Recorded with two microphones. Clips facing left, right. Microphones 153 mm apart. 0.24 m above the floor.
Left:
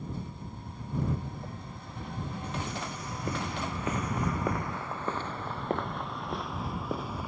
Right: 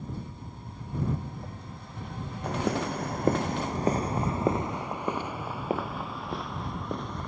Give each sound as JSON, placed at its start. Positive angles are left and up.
{"t": 2.4, "sound": "footsteps", "side_deg": -75}